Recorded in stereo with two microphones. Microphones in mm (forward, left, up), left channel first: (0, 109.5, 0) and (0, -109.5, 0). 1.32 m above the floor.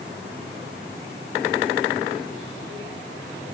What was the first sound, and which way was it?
Only background noise.